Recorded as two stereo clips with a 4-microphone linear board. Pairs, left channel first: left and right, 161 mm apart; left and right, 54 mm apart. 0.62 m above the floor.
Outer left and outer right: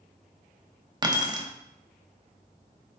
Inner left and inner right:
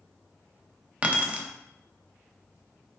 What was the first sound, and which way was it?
Keys jangling, 25° right (ahead or behind).